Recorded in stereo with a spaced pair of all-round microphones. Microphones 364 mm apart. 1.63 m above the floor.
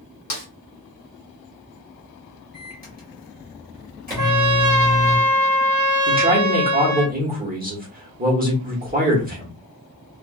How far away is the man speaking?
About 1.3 m.